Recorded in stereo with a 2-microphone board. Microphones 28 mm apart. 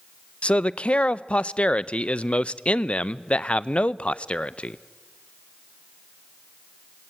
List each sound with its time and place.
0.4 s a man speaking: 45° left (ahead or behind), 0.5 m